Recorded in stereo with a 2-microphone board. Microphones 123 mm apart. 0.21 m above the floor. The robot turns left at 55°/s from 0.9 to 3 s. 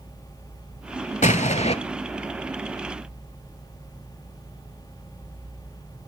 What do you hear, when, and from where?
1.2 s an explosion: 90° left, 0.5 m; by 1.8 s 60° left (ahead or behind), 0.5 m